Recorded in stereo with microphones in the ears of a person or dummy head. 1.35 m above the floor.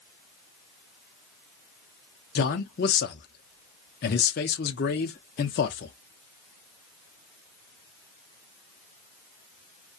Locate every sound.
2.4 s a man speaking: 50° left (ahead or behind), 0.6 m